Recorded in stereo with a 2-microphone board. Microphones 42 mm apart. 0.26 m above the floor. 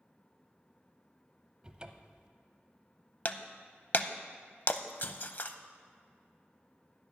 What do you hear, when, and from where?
1.6 s a cupboard door: 20° right (ahead or behind), 0.6 m
3.2 s breaking glass: 45° left (ahead or behind), 0.5 m